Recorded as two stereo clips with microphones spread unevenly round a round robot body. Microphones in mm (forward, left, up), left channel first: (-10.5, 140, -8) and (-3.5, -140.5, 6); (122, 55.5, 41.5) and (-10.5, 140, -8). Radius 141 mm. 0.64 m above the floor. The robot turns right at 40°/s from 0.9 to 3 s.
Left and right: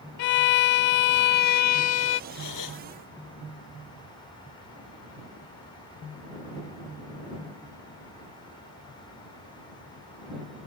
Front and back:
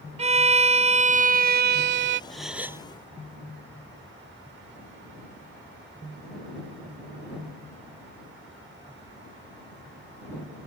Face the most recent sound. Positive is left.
turn(degrees=80)